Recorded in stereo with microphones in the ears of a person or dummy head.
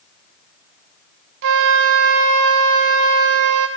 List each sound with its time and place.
1.4 s a flute: 60° right (ahead or behind), 0.7 m